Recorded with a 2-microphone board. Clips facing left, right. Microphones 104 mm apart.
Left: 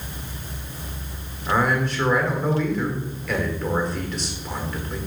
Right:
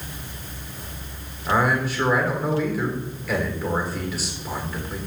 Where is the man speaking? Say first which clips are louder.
Even; 5° right (ahead or behind), 1.5 m.